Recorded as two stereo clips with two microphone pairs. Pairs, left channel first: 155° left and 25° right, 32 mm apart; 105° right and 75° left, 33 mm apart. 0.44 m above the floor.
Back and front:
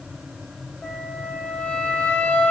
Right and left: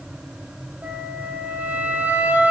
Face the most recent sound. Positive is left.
turn(degrees=105)